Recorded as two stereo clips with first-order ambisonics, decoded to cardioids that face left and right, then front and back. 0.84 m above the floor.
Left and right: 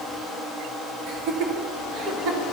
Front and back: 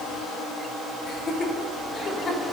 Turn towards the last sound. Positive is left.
turn(degrees=-65)